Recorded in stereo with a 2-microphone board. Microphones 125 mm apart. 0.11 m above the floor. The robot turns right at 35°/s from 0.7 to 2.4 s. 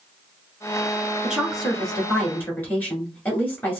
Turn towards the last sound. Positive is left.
turn(degrees=25)